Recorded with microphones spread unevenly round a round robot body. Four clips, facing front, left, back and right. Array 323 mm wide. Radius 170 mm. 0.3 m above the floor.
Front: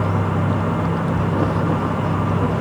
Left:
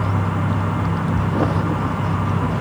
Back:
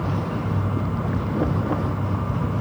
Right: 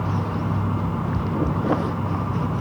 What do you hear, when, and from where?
Only background noise.